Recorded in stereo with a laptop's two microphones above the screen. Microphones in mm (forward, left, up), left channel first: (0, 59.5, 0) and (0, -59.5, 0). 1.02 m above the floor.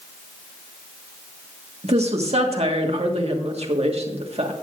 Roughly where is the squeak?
I don't hear a squeak.